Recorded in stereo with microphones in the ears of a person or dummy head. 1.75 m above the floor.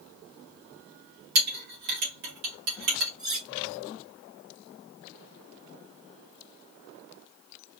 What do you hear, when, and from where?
1.4 s a clink: 45° right (ahead or behind), 1.5 m
3.2 s cutlery clinking: centre (ahead or behind), 1.5 m